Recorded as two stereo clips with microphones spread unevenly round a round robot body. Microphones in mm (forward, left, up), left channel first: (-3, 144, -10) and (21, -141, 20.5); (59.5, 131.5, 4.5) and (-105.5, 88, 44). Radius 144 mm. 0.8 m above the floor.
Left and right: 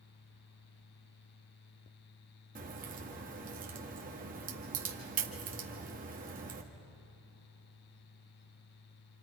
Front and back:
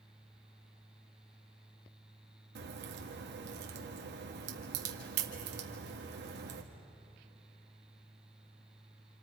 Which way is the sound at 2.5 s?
145° right.